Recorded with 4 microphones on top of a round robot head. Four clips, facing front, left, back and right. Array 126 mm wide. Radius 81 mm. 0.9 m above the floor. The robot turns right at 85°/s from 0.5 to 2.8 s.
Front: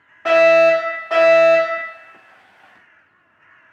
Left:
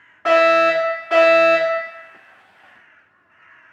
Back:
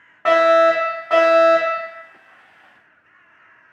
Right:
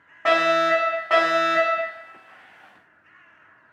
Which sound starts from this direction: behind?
A fire alarm, at 0.2 s.